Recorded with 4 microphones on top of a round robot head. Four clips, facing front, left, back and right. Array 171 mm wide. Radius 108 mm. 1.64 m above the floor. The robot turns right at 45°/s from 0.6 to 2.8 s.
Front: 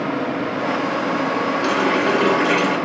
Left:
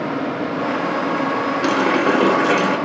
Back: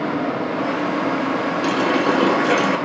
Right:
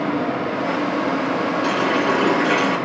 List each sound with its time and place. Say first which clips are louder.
1.6 s a running tap: left 4 dB, back 1 dB; 90° left, 0.8 m; by 2.8 s 145° left, 0.8 m